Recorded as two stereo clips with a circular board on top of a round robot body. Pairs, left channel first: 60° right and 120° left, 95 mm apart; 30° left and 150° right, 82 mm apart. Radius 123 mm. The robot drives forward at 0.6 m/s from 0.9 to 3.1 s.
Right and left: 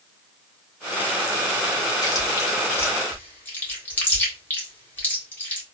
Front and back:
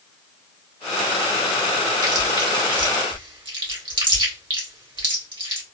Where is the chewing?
105° right, 1.4 m; by 5.6 s 130° right, 1.7 m.